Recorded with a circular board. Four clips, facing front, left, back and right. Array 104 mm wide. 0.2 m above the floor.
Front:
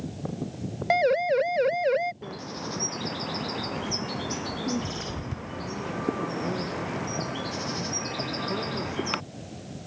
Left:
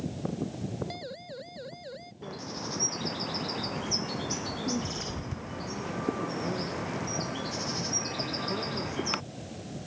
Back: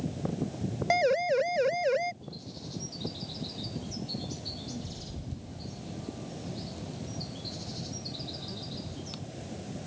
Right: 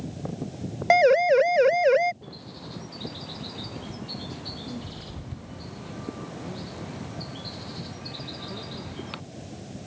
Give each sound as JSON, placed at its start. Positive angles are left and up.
{"t": 0.9, "sound": "a siren", "azimuth_deg": -80}
{"t": 2.2, "sound": "a bird", "azimuth_deg": 20}